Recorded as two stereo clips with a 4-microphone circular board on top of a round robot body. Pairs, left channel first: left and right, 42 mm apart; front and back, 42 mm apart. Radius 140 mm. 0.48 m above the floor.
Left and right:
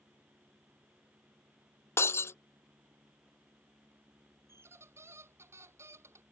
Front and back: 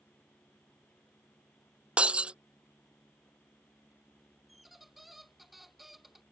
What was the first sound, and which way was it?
Breaking glass, 115° left.